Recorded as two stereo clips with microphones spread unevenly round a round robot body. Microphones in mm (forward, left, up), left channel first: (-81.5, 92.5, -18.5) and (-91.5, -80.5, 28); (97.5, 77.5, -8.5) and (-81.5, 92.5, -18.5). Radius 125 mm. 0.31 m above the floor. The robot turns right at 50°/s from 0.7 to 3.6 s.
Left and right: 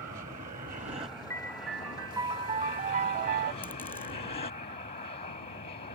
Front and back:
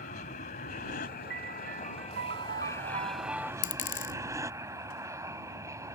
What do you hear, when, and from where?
0.0 s an aircraft: 40° right; by 6.0 s 105° left
1.3 s a piano: 160° left; by 3.5 s 90° right
3.6 s a dropped coin: 5° right